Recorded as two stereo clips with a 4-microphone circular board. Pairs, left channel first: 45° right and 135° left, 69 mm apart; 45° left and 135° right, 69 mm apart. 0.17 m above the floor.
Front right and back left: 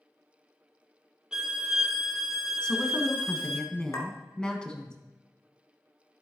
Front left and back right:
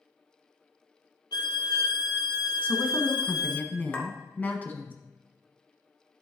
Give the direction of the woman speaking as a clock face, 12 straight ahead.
11 o'clock.